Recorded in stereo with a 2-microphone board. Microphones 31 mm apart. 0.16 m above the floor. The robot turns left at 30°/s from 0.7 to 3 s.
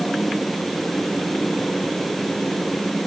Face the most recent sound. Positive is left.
No sound to turn to.